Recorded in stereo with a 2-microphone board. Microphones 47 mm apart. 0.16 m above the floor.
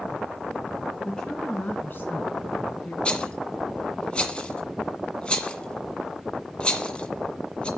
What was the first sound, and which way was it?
A woman speaking, 10° left (ahead or behind).